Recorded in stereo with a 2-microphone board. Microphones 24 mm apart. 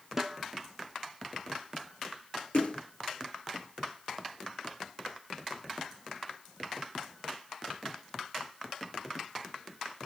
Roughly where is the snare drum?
Centre.